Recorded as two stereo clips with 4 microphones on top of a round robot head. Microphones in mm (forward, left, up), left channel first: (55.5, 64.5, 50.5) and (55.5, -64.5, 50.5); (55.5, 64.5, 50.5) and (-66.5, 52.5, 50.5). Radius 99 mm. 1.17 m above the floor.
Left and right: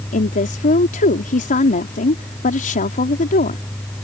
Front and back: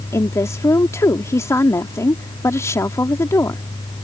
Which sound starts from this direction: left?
A woman speaking, at 0.1 s.